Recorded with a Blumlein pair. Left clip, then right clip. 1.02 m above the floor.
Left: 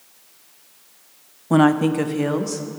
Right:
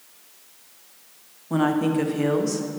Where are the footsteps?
I don't hear footsteps.